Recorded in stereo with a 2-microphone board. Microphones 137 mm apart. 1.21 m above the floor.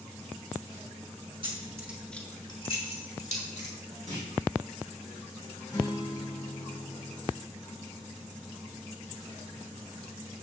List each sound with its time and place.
1.4 s keys jangling: 40° right (ahead or behind), 1.2 m; by 3.8 s 65° left (ahead or behind), 2.5 m
4.1 s a clunk: 70° right (ahead or behind), 3 m
5.7 s a guitar: 30° left (ahead or behind), 4 m